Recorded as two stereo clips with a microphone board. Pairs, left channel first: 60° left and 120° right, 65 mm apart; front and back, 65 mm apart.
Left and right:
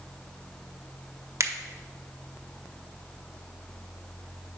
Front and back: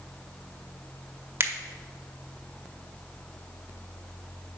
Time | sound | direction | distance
1.4 | a finger snap | 140° right | 0.6 m